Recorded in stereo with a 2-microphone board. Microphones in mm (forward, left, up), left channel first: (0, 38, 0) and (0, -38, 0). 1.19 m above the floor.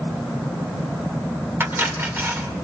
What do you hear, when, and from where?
1.6 s cutlery clinking: 30° right (ahead or behind), 2.5 m